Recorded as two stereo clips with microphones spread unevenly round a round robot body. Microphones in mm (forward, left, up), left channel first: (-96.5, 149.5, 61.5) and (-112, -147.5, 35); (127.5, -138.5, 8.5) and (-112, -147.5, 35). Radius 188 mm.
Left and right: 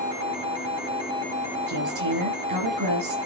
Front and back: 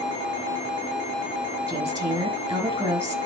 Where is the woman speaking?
100° right, 5 m.